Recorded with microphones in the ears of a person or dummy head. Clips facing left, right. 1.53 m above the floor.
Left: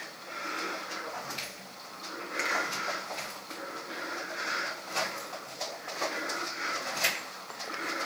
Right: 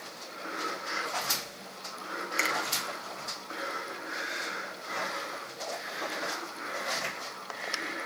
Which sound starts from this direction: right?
A finger snap, at 2.4 s.